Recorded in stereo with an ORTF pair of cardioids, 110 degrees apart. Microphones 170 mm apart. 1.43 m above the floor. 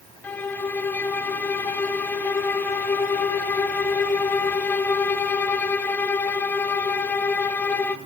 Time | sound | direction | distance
0.2 | a violin | 10° left | 0.5 m